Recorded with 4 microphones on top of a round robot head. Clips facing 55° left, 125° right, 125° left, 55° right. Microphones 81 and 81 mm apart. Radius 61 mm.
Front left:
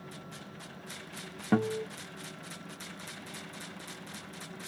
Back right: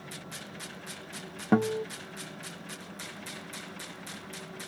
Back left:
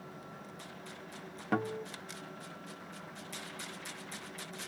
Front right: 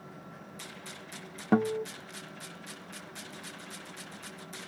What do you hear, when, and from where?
1.5 s a guitar: 85° right, 0.5 m